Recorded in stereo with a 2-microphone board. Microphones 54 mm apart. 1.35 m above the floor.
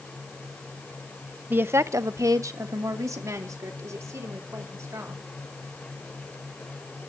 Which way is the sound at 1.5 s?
35° right (ahead or behind).